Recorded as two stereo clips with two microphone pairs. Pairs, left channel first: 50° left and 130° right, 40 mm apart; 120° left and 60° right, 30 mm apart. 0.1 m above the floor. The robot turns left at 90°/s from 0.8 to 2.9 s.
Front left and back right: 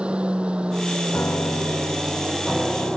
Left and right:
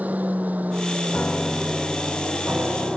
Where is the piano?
85° left; by 3.0 s 80° right.